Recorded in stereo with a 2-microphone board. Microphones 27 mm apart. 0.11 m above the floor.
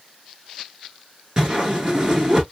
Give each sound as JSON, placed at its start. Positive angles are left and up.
{"t": 1.4, "sound": "a whoosh", "side_deg": -20, "distance_m": 1.3}